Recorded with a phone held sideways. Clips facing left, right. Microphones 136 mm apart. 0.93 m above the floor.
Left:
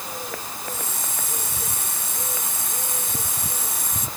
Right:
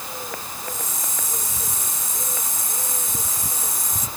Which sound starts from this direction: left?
A hiss, at 0.6 s.